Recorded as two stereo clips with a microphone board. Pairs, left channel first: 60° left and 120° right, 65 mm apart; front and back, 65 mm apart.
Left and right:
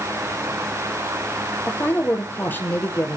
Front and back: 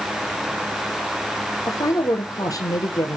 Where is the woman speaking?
5° left, 2.5 m.